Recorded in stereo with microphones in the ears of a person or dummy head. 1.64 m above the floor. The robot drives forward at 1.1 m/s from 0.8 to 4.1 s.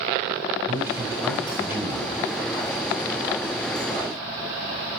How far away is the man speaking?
About 9.5 m.